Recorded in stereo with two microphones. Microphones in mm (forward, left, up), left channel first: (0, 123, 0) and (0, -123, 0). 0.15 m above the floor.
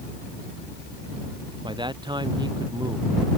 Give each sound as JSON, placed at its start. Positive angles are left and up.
{"t": 1.6, "sound": "a man speaking", "side_deg": -20}